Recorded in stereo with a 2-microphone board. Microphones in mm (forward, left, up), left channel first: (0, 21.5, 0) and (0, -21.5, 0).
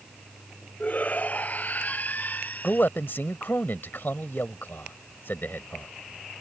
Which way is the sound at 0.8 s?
35° left (ahead or behind).